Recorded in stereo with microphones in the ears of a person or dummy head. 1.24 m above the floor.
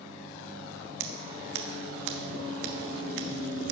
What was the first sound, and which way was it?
Scissors, 70° right (ahead or behind).